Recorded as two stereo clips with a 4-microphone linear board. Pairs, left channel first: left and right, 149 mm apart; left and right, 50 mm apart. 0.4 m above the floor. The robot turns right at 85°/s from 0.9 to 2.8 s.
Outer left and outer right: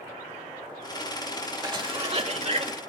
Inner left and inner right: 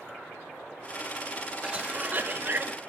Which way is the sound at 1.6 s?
145° right.